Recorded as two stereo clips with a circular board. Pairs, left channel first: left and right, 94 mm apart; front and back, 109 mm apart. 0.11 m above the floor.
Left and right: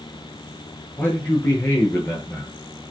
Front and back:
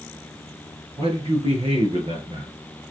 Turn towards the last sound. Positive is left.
turn(degrees=150)